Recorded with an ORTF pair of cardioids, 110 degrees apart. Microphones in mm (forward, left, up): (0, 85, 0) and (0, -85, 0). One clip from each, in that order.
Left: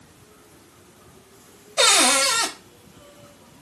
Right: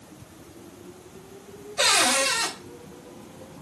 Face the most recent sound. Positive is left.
turn(degrees=60)